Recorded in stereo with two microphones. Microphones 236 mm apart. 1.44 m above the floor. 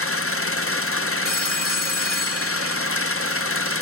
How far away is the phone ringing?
About 3 m.